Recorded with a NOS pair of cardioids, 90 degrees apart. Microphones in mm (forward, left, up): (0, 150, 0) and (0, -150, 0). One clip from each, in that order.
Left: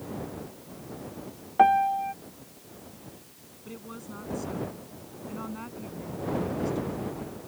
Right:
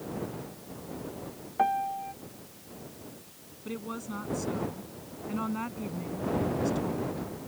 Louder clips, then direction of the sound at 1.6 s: Left 7 dB; 35° left.